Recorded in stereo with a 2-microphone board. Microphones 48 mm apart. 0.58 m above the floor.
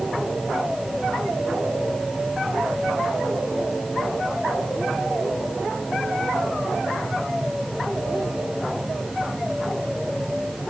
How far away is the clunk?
I don't hear a clunk.